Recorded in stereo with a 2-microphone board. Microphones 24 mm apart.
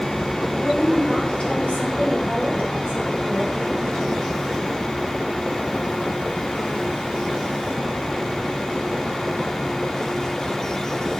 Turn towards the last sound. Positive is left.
turn(degrees=60)  # may be behind; listen again after turning